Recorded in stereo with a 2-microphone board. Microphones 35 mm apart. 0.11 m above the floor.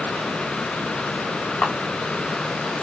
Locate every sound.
1.6 s a camera shutter: 65° left (ahead or behind), 2 m